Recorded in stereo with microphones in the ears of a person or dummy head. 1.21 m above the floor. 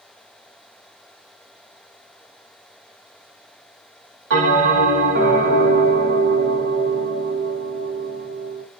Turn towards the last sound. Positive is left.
turn(degrees=-65)  # may be behind; listen again after turning